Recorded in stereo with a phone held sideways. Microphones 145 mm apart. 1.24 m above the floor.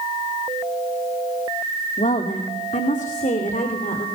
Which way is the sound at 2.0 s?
50° left (ahead or behind).